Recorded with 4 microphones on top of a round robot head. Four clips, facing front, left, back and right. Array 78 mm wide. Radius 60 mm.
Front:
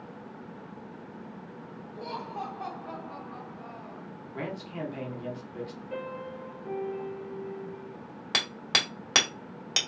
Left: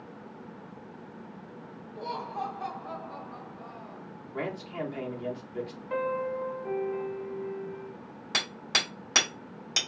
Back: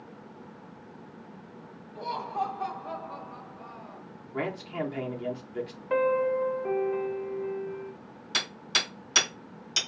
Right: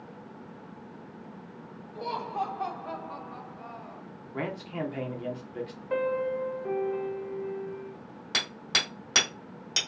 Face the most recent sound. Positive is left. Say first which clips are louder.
# even, front 1 dB
turn(degrees=5)